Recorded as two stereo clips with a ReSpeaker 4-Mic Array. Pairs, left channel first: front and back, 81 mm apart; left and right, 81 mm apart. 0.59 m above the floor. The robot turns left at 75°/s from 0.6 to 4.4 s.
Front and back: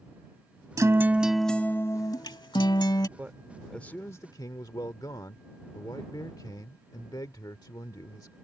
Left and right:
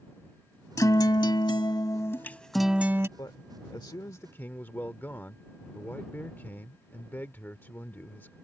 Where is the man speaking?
120° left; by 8.3 s 30° left.